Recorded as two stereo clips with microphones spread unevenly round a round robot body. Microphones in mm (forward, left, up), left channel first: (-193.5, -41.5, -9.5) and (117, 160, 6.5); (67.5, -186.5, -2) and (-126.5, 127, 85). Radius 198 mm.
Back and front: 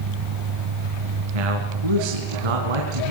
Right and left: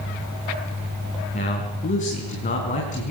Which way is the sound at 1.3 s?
10° left.